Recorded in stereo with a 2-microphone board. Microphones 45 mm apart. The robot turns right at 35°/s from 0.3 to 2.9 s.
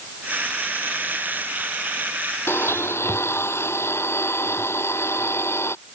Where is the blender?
80° left.